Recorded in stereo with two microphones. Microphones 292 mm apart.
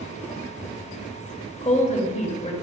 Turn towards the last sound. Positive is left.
turn(degrees=25)  # may be behind; listen again after turning